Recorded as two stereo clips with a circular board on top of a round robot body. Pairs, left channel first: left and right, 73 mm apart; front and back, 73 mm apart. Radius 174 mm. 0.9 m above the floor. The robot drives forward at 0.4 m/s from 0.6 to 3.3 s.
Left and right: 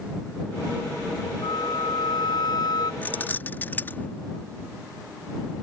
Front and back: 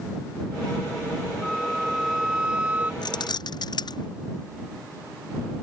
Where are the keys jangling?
20° left.